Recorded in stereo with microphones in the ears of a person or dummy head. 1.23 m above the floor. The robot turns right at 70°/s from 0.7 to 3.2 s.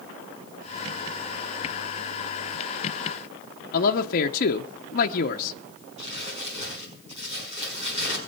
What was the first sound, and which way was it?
A man speaking, 50° left (ahead or behind).